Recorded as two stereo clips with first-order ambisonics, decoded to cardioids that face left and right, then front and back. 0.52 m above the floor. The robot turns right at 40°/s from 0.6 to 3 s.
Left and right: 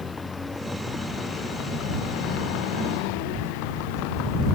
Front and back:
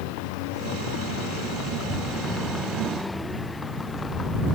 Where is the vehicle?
15° left; by 4.6 s 70° left.